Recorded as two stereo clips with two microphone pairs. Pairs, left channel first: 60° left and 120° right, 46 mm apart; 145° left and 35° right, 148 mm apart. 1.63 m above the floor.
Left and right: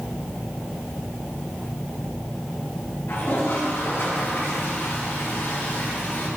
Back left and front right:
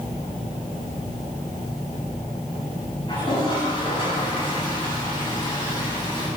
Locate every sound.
3.1 s a toilet flushing: 90° left, 8 m